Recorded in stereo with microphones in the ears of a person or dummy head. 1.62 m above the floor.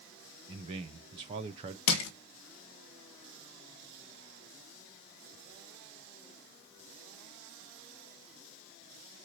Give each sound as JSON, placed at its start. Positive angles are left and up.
{"t": 0.5, "sound": "a man speaking", "side_deg": -25, "distance_m": 0.6}
{"t": 1.9, "sound": "crushing", "side_deg": 70, "distance_m": 1.0}